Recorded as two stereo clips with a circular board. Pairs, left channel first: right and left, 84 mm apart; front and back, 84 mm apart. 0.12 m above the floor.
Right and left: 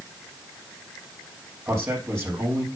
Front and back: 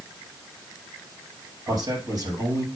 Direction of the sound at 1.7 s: 150° left.